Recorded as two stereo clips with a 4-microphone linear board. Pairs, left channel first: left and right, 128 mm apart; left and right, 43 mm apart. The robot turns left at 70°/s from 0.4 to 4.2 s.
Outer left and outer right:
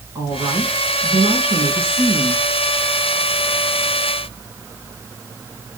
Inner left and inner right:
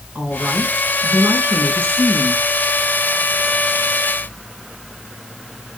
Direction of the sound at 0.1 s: 25° right.